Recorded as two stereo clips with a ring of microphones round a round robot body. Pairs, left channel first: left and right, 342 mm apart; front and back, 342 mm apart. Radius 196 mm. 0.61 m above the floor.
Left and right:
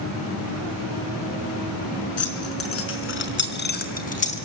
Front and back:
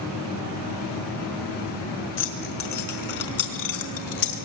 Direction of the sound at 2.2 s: 45° left.